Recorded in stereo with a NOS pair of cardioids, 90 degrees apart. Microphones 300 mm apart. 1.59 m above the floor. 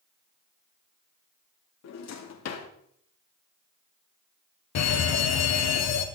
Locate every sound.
1.8 s a drawer: 65° left, 2 m
4.8 s a fire alarm: 65° left, 1.9 m